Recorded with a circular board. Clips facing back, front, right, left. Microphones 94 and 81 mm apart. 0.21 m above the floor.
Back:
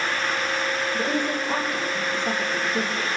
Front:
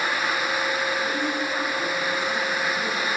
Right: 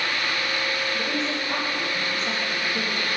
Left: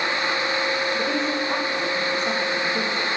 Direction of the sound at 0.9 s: 155° left.